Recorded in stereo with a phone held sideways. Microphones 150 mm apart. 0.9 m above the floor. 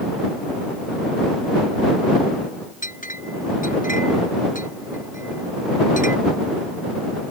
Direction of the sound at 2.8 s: 60° left (ahead or behind).